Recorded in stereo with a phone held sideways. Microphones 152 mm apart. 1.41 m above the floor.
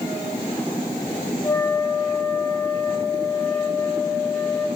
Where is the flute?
25° left (ahead or behind), 4.5 m.